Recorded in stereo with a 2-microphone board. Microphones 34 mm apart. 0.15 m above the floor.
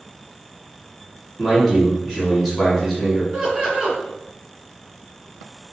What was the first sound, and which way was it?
A man speaking, 5° left (ahead or behind).